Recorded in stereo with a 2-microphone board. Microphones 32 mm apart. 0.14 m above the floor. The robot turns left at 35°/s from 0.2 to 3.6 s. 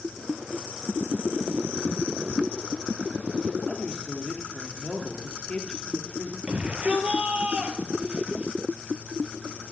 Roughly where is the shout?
Right.